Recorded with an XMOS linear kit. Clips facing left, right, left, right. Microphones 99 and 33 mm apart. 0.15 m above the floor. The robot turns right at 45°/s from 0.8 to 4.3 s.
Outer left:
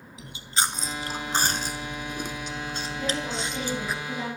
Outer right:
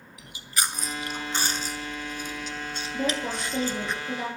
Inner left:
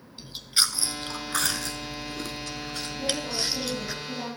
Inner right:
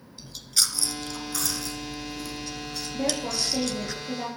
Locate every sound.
0.2 s chewing: 25° left (ahead or behind), 1.0 m; by 3.9 s 5° left (ahead or behind), 1.0 m
2.9 s a woman speaking: 70° right, 5 m; by 4.3 s 10° right, 5 m